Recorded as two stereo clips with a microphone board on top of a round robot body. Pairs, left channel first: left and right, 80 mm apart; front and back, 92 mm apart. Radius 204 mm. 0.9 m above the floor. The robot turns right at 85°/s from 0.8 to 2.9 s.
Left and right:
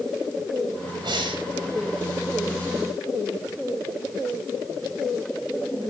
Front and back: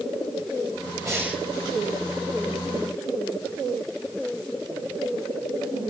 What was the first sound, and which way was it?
Breathing, 125° right.